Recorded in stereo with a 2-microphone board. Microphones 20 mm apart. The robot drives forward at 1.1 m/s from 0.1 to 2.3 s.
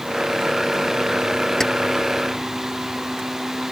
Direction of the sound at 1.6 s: 20° left (ahead or behind).